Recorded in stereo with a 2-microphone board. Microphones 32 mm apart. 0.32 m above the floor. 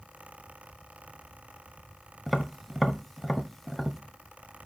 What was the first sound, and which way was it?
Tapping, centre (ahead or behind).